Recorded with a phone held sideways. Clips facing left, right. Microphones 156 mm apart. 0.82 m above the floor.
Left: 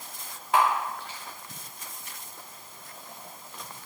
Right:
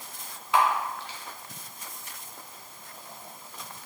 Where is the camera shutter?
50° left (ahead or behind), 1.3 m.